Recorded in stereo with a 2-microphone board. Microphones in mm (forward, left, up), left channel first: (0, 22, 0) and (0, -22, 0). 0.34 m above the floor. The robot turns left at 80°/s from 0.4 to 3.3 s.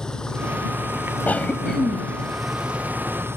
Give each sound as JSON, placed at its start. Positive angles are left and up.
{"t": 0.0, "sound": "an engine running", "azimuth_deg": 165}
{"t": 1.3, "sound": "a cough", "azimuth_deg": 55}